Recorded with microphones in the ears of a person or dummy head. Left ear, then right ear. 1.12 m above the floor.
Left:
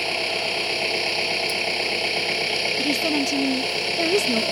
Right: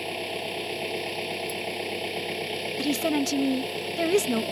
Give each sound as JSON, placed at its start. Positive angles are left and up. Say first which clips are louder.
{"t": 0.0, "sound": "an engine running", "louder": "left 8 dB", "side_deg": 40}
{"t": 2.8, "sound": "a woman speaking", "louder": "left 4 dB", "side_deg": -5}